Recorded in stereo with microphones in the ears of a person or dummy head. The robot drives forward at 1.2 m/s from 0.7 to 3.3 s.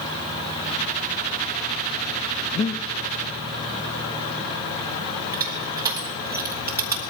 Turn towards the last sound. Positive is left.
turn(degrees=-15)  # may be behind; listen again after turning